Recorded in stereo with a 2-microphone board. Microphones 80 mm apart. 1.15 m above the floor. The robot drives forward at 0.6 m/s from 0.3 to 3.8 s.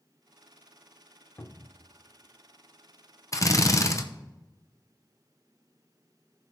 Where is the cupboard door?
30° left (ahead or behind), 0.8 m.